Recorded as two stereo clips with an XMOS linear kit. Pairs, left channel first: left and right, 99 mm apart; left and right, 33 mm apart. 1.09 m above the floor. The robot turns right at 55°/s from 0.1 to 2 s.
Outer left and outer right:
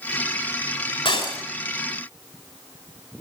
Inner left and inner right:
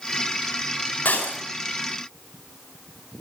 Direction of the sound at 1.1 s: 70° left (ahead or behind).